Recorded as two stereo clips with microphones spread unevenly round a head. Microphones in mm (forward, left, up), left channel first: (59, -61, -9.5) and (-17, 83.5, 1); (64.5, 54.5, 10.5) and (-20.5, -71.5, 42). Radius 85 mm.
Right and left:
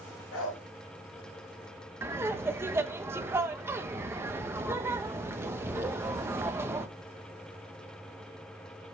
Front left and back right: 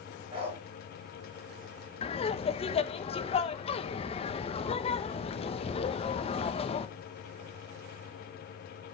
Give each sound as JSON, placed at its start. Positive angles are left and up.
{"t": 0.3, "sound": "a dog barking", "azimuth_deg": -70, "distance_m": 4.0}
{"t": 2.0, "sound": "laughter", "azimuth_deg": 45, "distance_m": 1.1}